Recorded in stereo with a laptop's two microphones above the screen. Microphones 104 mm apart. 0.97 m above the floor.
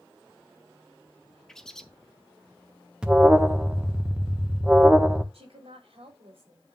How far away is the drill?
No drill in this recording.